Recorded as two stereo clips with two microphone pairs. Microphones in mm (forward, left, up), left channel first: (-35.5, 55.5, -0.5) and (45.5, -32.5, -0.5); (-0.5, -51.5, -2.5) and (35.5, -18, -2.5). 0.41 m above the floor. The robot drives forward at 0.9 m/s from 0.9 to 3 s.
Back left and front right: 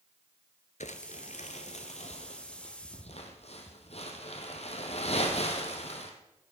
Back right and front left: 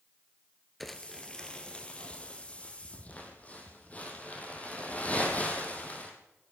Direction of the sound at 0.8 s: 135° left.